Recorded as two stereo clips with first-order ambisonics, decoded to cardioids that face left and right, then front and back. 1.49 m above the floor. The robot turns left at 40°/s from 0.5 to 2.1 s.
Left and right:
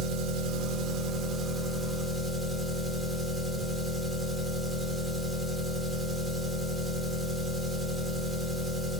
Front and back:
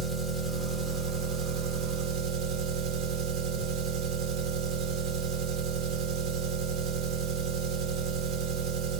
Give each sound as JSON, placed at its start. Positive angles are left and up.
{"t": 0.0, "sound": "an engine running", "azimuth_deg": -110, "distance_m": 1.2}